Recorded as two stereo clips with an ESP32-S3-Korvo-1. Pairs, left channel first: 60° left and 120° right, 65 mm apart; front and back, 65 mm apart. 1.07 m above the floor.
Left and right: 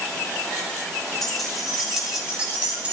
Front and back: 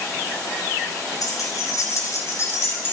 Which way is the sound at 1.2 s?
30° right.